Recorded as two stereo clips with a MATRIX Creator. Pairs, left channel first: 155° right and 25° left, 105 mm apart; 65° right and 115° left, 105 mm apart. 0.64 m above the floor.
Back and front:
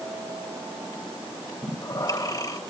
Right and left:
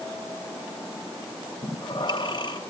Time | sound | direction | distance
1.6 | breathing | 110° right | 3.5 m